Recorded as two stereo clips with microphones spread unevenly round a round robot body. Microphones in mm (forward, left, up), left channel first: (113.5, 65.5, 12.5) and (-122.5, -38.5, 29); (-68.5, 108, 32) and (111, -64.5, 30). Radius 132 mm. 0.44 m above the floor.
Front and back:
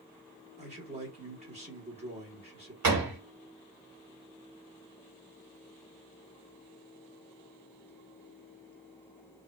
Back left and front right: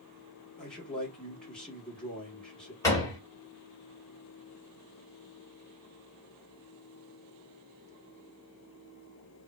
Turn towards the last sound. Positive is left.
turn(degrees=-145)